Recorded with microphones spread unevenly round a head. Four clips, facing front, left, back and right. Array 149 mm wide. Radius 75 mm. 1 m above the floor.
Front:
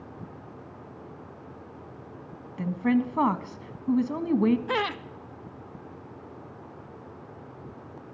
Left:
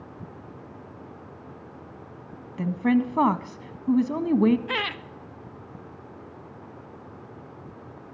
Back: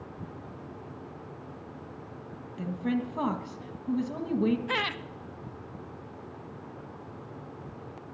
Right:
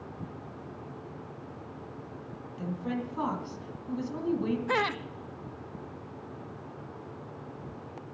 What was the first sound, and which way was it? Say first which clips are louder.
A woman speaking: left 11 dB, front 6 dB; 70° left.